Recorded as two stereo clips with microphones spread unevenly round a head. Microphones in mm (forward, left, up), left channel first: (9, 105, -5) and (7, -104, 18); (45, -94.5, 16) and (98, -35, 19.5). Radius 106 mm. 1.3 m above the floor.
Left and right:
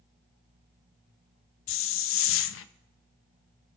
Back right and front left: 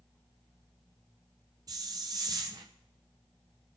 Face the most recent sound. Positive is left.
turn(degrees=105)